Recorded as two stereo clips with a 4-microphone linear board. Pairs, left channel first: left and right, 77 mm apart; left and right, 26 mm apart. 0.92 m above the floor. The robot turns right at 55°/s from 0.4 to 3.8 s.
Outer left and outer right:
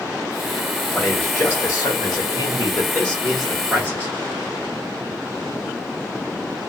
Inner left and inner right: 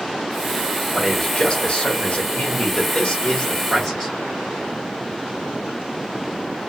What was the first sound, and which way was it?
A man speaking, straight ahead.